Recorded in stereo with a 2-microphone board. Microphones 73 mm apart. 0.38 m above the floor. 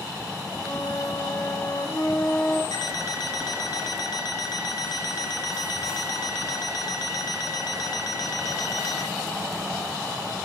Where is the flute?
70° left (ahead or behind), 3 m.